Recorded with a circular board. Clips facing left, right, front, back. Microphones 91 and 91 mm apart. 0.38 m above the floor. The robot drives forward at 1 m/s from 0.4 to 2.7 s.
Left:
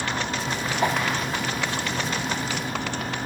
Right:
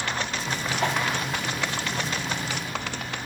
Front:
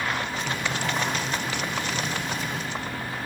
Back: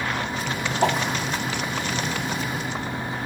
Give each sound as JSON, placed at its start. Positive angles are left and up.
{"t": 0.8, "sound": "a whoosh", "azimuth_deg": 165, "distance_m": 1.6}